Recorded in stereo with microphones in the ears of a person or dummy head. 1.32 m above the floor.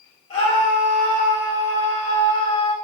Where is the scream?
25° left (ahead or behind), 2 m.